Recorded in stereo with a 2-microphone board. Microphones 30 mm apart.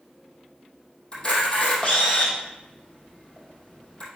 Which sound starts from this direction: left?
A camera shutter, at 1.1 s.